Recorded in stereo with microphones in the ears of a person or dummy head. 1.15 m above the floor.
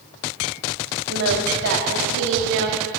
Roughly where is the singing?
Right.